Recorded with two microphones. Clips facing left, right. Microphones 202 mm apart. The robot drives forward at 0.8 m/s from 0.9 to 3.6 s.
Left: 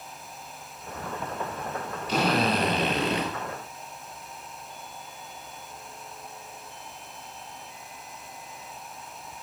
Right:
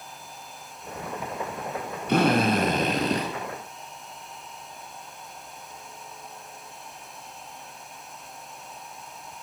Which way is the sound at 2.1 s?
55° right (ahead or behind).